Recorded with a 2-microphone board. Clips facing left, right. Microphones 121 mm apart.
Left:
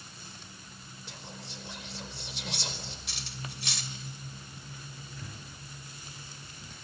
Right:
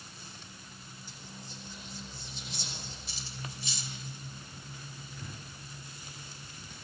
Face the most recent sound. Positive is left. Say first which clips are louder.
# even
turn(degrees=-5)  # may be behind; listen again after turning